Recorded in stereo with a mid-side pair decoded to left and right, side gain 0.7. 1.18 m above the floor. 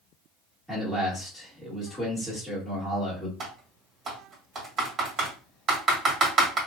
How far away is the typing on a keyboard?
About 1.7 m.